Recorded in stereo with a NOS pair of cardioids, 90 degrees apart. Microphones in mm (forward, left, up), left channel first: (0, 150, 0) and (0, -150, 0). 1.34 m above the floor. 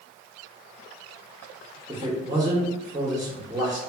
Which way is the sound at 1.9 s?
15° right.